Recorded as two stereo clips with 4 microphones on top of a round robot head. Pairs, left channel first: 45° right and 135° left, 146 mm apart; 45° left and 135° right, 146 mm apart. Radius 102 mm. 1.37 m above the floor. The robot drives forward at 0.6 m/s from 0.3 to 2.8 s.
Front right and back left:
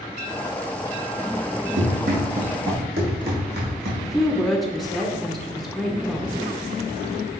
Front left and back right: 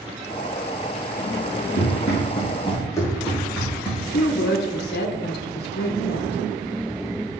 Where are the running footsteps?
90° left, 3 m; by 3.9 s 125° left, 3.5 m.